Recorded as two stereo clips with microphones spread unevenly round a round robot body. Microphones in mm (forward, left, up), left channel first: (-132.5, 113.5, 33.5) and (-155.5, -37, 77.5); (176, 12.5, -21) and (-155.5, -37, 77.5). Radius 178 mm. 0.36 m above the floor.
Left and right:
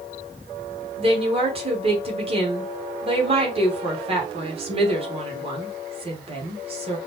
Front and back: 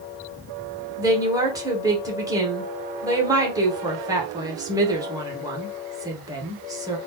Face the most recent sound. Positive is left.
turn(degrees=-65)